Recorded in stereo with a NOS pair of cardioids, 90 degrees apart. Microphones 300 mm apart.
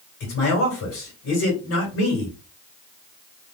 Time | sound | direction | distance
0.2 | a man speaking | 65° left | 2.5 m